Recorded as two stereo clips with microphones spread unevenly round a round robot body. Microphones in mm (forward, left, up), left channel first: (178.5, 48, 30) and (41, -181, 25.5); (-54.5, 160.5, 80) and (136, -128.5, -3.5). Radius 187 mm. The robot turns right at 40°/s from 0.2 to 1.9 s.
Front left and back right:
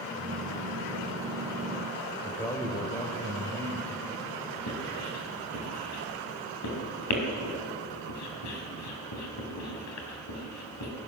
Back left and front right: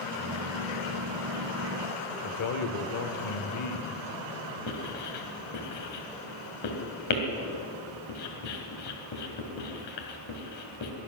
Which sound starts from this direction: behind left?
A man speaking, at 2.2 s.